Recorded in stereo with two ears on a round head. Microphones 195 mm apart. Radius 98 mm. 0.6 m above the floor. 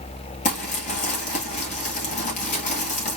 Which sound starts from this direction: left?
Crumpling, at 0.5 s.